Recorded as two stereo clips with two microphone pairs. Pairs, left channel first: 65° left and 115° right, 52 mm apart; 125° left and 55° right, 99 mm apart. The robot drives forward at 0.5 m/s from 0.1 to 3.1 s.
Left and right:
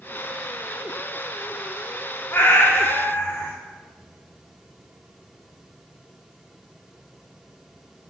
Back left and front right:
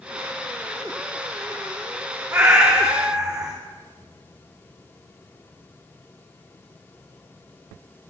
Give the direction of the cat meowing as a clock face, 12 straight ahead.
11 o'clock.